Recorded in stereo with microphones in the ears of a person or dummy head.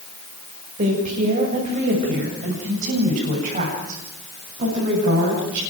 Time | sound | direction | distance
0.8 | a woman speaking | 35° right (ahead or behind) | 6.5 m